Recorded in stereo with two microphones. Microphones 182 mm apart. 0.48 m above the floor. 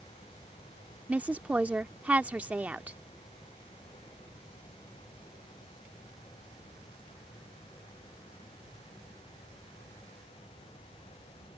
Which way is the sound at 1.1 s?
10° right (ahead or behind).